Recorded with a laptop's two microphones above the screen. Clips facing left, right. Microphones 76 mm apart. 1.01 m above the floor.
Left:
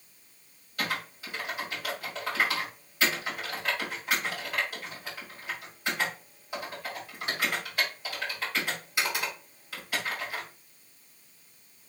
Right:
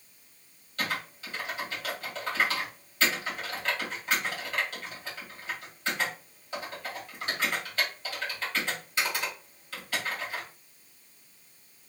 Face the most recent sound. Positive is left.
turn(degrees=15)  # may be behind; listen again after turning